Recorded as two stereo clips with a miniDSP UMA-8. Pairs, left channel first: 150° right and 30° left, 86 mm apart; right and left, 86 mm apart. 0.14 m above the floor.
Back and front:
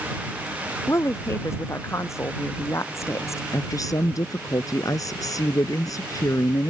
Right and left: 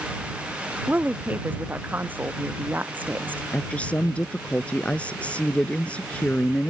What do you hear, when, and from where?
0.9 s a woman speaking: 155° left
3.5 s a woman speaking: 160° right